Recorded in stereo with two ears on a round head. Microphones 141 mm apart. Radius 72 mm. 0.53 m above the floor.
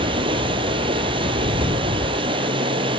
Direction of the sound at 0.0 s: 35° right (ahead or behind).